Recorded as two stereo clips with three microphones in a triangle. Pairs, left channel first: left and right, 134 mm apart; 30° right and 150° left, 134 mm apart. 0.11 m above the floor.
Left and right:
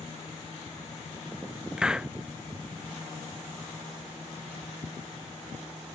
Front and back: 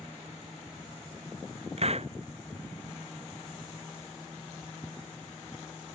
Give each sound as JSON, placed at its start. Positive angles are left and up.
{"t": 1.8, "sound": "a hiss", "azimuth_deg": -175}